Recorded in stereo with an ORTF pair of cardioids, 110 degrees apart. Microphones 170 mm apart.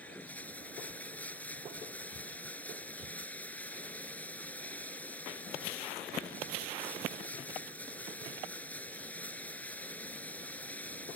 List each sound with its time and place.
0.0 s running water: 10° left